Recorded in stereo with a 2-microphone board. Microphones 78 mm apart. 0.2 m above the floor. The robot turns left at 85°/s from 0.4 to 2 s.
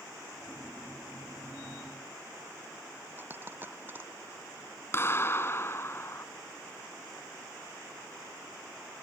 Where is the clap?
35° left (ahead or behind).